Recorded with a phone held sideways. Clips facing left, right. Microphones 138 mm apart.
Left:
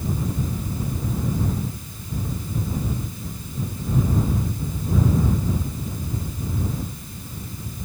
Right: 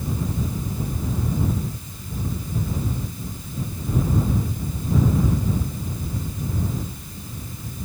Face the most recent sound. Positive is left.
No sound to turn to.